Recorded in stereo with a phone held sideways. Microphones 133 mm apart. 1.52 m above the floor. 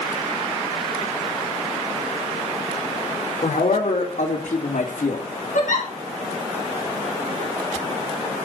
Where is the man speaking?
70° left (ahead or behind), 4.5 m; by 5.2 s 85° left, 3 m.